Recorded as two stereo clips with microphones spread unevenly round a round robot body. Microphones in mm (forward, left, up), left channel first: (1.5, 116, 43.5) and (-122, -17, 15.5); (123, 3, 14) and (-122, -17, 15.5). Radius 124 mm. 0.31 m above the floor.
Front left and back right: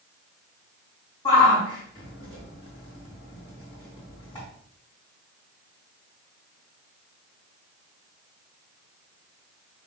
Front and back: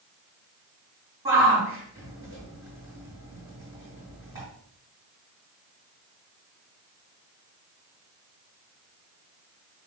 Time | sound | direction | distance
1.2 | a shout | 115° left | 3.5 m